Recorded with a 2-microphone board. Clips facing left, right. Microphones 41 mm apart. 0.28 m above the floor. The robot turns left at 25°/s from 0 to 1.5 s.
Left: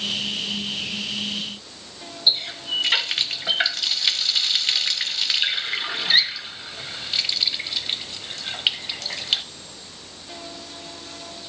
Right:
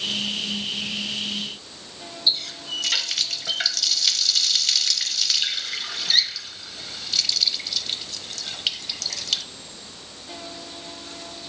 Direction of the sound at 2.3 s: 25° left (ahead or behind).